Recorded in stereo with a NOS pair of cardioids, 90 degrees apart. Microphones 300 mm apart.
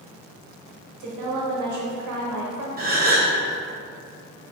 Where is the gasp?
30° right, 0.7 m.